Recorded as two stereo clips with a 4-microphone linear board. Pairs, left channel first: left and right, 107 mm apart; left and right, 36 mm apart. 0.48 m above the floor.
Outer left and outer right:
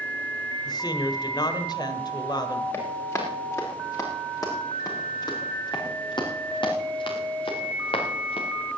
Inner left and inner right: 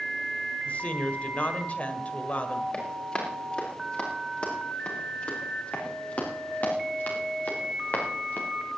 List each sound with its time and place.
0.7 s a woman speaking: 40° left (ahead or behind), 1.6 m
2.7 s running footsteps: 25° left (ahead or behind), 5.5 m; by 8.5 s 65° left (ahead or behind), 4 m